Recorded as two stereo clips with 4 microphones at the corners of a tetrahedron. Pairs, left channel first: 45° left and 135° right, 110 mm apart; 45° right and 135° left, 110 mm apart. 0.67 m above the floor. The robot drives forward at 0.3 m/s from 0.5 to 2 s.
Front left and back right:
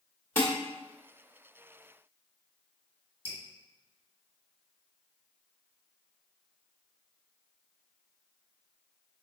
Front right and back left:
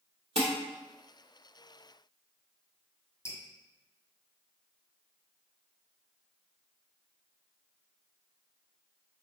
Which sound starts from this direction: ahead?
Dripping, at 3.2 s.